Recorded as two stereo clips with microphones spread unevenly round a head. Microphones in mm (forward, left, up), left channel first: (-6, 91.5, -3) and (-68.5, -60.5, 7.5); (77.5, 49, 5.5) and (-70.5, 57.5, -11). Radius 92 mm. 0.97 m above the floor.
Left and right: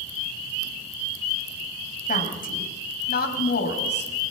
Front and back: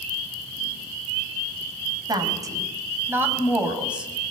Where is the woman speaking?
110° left, 5.5 m; by 4.1 s 90° left, 6 m.